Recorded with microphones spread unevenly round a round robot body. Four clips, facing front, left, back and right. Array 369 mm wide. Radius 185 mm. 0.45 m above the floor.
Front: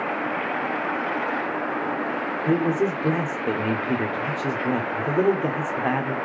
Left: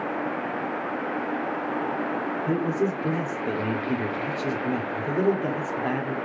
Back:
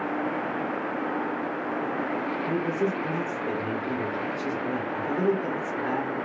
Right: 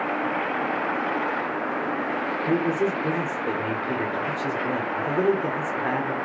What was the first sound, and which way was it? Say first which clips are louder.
A man speaking: right 2 dB, front 7 dB; 5° right.